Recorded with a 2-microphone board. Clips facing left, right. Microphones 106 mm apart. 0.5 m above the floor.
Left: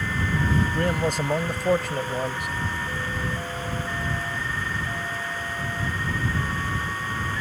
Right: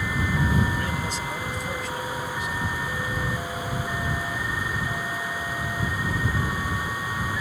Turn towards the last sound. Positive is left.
turn(degrees=65)  # may be behind; listen again after turning